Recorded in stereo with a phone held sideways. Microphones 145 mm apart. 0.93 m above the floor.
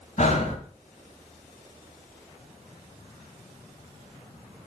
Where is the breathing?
50° left (ahead or behind), 1.8 m.